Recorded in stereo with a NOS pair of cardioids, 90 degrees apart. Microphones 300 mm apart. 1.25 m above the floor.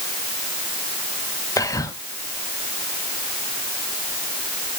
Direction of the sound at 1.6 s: 10° left.